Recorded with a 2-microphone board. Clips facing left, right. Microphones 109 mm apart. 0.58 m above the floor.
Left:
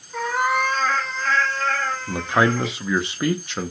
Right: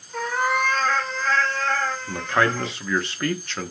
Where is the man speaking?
15° left (ahead or behind), 0.6 m.